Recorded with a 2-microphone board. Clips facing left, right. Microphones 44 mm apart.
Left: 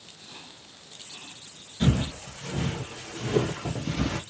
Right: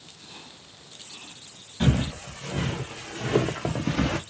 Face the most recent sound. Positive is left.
turn(degrees=-85)